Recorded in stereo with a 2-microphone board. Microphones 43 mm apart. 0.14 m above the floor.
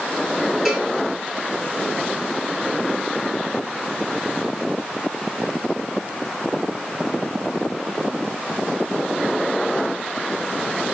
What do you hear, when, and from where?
0.7 s a cowbell: 10° right (ahead or behind), 0.6 m